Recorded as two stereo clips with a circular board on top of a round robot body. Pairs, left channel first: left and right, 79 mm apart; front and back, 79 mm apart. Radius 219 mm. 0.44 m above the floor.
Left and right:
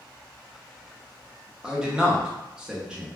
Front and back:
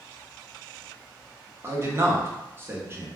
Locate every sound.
1.6 s a man speaking: 160° right, 0.9 m